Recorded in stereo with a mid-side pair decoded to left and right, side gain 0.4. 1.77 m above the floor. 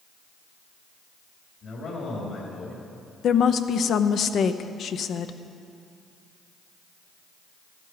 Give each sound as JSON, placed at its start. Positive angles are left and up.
{"t": 1.6, "sound": "a man speaking", "azimuth_deg": 70, "distance_m": 4.5}
{"t": 3.2, "sound": "a woman speaking", "azimuth_deg": 70, "distance_m": 0.8}